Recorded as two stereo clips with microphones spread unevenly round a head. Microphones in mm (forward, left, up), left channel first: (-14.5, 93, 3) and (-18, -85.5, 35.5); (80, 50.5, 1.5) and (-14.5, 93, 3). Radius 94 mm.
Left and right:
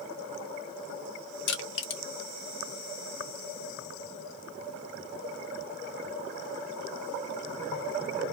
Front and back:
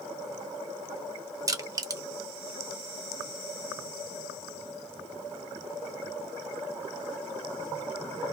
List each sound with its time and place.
1.5 s crushing: 105° left, 1.0 m